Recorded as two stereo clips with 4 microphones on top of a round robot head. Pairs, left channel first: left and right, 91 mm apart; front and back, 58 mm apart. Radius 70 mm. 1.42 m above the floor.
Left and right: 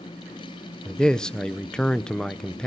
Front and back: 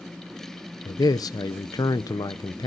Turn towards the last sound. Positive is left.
turn(degrees=5)